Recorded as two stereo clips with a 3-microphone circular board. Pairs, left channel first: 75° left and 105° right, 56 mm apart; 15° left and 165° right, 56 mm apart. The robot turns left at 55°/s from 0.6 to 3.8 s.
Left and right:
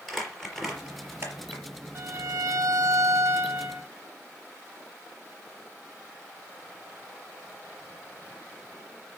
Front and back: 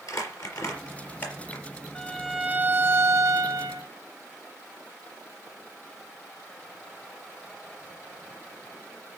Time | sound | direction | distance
0.1 | crumpling | 10° right | 4 m
1.9 | a violin | 65° right | 1.0 m